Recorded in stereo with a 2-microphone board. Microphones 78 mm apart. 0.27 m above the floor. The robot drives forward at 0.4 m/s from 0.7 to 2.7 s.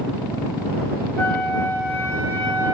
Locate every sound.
1.2 s a flute: 35° left (ahead or behind), 1.0 m; by 2.8 s 20° left (ahead or behind), 1.5 m